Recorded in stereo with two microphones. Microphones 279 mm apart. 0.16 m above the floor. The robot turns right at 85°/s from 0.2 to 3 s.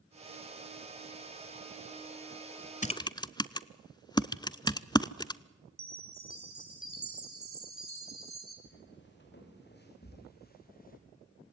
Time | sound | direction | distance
2.8 | typing on a keyboard | 30° left (ahead or behind) | 0.5 m
5.8 | a chime | 50° right (ahead or behind) | 2 m
8.7 | footsteps | 40° left (ahead or behind) | 7 m